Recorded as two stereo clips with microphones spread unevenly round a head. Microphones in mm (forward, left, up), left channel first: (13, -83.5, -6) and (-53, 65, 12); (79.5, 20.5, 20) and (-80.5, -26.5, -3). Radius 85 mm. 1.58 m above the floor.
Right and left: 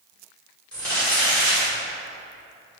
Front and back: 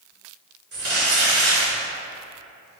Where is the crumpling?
155° right, 1.9 m.